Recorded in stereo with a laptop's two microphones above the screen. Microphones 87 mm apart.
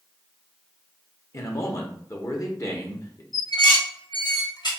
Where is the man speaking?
35° left (ahead or behind), 0.7 m.